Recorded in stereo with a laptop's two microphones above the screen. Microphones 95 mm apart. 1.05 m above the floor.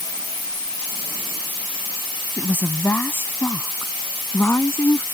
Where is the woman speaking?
20° left (ahead or behind); by 5.0 s 25° left (ahead or behind).